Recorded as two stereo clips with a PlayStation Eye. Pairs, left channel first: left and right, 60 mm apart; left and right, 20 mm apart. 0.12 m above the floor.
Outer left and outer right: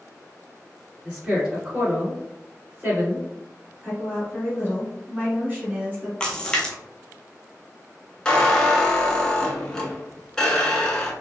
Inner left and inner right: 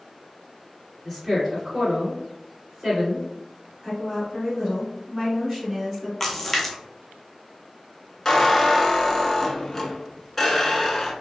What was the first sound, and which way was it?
A woman speaking, 15° right (ahead or behind).